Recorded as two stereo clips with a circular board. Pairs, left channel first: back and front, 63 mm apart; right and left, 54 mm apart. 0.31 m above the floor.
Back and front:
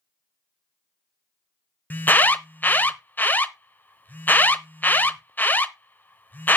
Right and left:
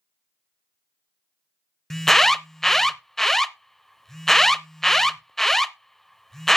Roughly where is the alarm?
Behind.